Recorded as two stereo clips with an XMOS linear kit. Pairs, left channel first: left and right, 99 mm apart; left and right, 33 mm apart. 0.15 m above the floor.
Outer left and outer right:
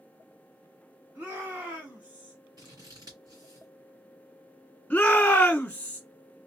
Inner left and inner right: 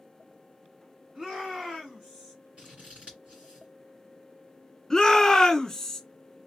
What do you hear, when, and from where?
1.1 s a shout: 25° right (ahead or behind), 1.8 m; by 2.4 s 10° right (ahead or behind), 1.7 m
2.6 s scissors: 40° right (ahead or behind), 2 m
4.9 s a shout: 15° left (ahead or behind), 1.4 m